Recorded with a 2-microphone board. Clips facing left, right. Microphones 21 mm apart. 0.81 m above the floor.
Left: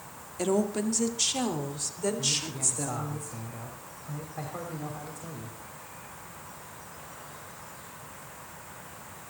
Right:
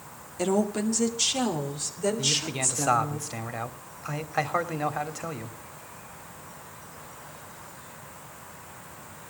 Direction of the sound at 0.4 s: 5° right (ahead or behind).